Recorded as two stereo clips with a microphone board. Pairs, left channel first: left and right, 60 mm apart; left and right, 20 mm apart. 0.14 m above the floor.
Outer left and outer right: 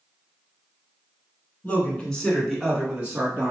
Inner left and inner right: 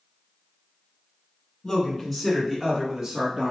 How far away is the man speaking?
About 1.4 m.